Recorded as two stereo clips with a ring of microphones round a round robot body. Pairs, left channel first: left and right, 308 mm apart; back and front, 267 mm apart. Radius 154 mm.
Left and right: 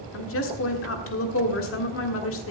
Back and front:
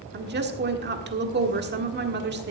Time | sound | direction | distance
0.1 | a woman speaking | 45° left | 1.5 m